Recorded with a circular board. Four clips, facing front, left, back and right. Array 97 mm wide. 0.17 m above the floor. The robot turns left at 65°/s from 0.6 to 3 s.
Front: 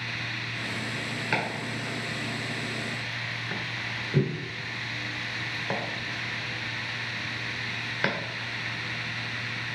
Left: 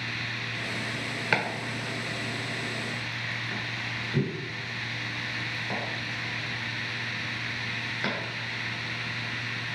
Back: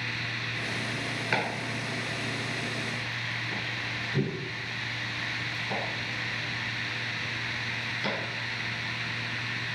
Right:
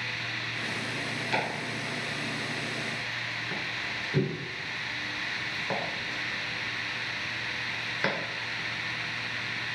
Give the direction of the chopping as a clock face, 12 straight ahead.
9 o'clock.